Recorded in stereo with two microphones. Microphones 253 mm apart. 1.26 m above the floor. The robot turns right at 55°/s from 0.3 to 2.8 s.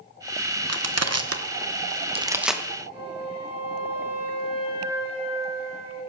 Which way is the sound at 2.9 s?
20° right (ahead or behind).